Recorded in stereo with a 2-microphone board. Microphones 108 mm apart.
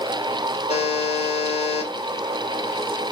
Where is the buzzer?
75° left (ahead or behind), 2.0 m.